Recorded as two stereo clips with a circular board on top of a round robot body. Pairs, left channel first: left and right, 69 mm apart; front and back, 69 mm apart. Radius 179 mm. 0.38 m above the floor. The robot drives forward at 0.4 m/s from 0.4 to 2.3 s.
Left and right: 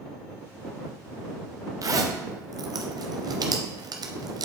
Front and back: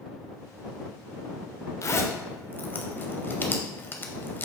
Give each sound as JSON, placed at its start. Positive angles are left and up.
{"t": 1.8, "sound": "a zipper", "azimuth_deg": -50, "distance_m": 0.7}